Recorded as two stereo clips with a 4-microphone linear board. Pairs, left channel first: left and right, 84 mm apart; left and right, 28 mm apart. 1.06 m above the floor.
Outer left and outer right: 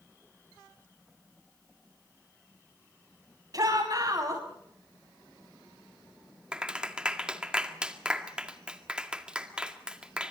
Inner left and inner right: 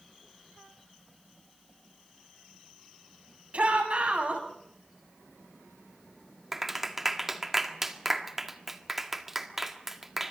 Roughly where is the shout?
Right.